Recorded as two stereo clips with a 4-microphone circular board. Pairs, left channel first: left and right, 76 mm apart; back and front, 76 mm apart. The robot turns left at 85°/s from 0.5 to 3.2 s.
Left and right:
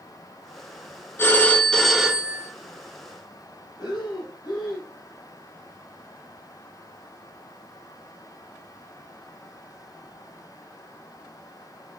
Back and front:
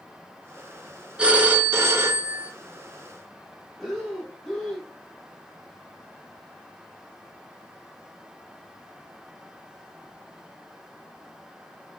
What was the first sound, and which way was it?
A phone ringing, 65° left.